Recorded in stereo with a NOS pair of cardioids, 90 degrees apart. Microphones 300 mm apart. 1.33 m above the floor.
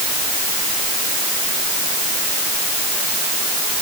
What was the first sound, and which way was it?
Only background noise.